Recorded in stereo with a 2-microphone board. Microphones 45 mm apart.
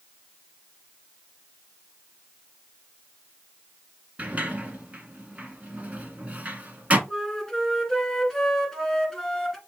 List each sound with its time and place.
4.2 s a sliding door: 35° right (ahead or behind), 0.9 m
7.1 s a flute: 5° left (ahead or behind), 1.5 m